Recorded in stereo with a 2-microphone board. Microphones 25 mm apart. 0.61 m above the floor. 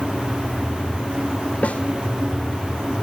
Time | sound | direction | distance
1.6 | a snare drum | 60° left (ahead or behind) | 2.5 m